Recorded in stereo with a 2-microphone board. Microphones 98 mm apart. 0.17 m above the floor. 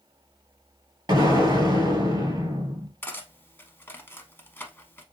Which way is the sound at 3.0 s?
20° left (ahead or behind).